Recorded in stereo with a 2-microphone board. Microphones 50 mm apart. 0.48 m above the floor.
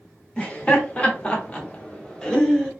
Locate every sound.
0.4 s laughter: 25° left (ahead or behind), 1.0 m; by 2.7 s 10° left (ahead or behind), 0.9 m